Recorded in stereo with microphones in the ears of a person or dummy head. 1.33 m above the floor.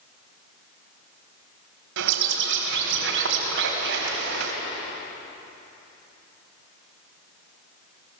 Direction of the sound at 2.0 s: 70° right (ahead or behind).